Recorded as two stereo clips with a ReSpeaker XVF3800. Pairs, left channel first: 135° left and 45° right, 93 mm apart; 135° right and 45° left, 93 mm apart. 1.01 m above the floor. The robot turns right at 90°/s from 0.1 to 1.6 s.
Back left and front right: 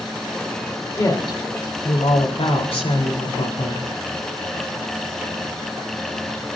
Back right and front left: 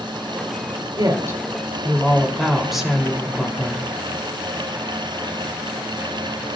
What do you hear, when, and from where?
1.0 s a woman speaking: 75° left, 4 m; by 3.9 s 135° left, 4 m